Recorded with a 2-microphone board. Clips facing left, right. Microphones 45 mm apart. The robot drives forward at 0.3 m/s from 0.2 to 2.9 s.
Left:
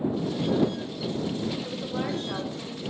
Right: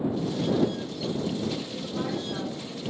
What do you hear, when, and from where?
1.6 s a woman speaking: 65° left (ahead or behind), 3.5 m